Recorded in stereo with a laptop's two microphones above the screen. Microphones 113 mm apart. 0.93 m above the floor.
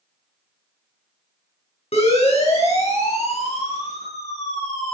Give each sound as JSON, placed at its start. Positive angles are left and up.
{"t": 1.9, "sound": "a siren", "side_deg": 65, "distance_m": 7.5}